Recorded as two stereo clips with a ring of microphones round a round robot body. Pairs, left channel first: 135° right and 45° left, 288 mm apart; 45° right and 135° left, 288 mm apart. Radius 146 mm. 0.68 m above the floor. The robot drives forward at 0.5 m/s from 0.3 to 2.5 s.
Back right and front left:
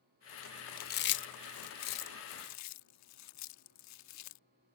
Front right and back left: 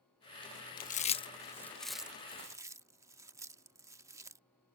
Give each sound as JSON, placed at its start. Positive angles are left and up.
{"t": 0.8, "sound": "chewing", "azimuth_deg": -90}